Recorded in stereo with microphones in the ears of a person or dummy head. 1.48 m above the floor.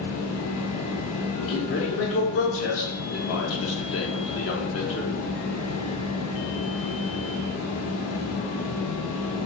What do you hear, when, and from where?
0.0 s a fan: 85° left, 1.0 m
1.5 s a man speaking: 75° left (ahead or behind), 0.9 m